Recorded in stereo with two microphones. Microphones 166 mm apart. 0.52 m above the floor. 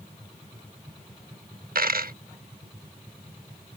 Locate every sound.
1.8 s a dropped coin: 70° right (ahead or behind)